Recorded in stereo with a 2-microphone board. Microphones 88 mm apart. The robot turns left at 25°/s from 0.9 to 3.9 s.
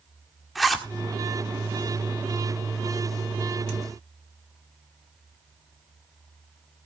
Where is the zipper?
Centre (ahead or behind), 1.6 m.